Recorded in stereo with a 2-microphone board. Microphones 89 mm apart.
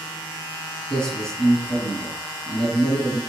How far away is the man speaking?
About 1.5 m.